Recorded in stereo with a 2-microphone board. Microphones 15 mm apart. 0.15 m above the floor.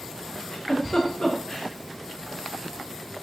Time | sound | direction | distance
0.4 | a giggle | 40° left (ahead or behind) | 8.5 m